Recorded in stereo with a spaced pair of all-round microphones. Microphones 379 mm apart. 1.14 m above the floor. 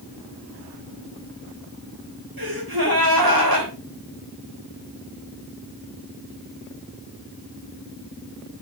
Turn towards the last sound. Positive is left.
turn(degrees=-60)  # may be behind; listen again after turning